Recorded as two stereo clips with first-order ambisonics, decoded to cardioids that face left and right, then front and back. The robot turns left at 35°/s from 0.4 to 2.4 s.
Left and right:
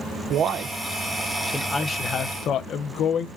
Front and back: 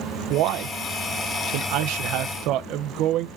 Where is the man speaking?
145° right, 0.8 m; by 3.3 s 145° left, 0.8 m.